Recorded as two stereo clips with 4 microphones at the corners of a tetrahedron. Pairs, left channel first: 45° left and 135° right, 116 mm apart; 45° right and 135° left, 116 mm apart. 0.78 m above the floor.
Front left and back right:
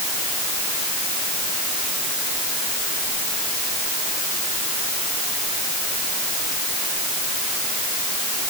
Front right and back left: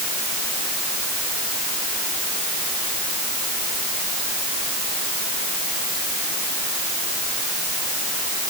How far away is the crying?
No crying in this recording.